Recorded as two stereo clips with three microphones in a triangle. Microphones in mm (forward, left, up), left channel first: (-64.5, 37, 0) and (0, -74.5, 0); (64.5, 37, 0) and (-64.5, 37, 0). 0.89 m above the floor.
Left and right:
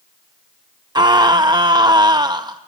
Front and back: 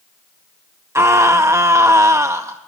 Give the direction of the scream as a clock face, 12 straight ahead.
4 o'clock.